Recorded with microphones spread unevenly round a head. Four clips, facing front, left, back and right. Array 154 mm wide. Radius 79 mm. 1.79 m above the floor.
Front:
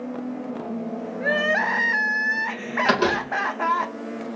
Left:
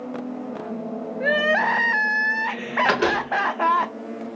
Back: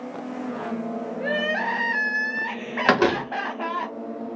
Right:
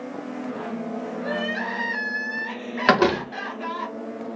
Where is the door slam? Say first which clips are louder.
Right 5 dB, back 2 dB; 125° right, 1.2 m.